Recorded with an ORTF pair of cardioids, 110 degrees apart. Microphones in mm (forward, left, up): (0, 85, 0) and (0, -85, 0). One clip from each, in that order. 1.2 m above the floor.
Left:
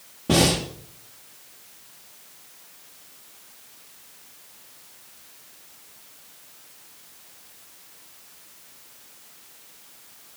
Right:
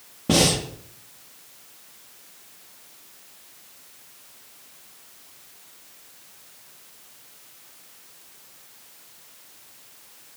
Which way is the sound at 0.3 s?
20° right.